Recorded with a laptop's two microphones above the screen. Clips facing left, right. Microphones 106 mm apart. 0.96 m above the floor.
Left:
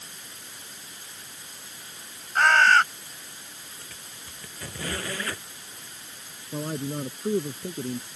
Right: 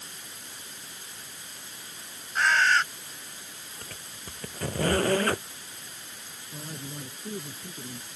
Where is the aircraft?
No aircraft in this recording.